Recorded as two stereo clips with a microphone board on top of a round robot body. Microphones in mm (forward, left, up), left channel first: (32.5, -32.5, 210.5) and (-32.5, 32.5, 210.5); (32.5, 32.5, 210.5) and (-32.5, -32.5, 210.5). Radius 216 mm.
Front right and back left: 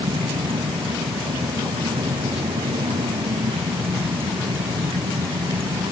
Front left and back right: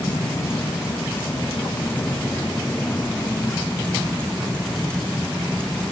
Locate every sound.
0.0 s a vehicle: 110° left; by 5.9 s 125° left